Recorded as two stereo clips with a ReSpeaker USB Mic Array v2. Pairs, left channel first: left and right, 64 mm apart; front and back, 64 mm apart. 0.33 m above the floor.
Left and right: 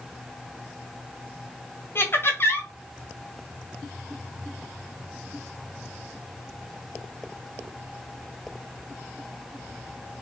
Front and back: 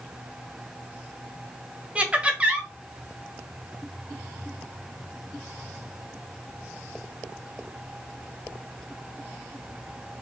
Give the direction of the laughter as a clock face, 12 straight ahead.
8 o'clock.